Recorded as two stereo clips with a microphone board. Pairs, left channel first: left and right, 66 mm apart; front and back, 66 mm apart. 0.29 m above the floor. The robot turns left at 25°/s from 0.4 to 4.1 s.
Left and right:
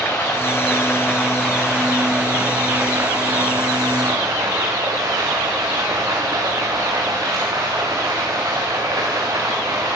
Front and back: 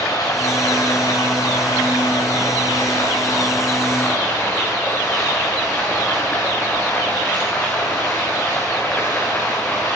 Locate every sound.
0.0 s running water: 30° left, 5.5 m; by 9.9 s 65° right, 5.5 m